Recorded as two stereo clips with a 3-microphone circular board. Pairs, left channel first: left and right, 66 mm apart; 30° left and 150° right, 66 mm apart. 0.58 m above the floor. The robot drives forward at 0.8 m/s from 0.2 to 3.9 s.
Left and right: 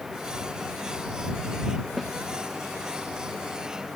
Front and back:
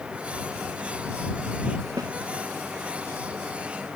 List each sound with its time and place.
2.0 s a snare drum: 175° right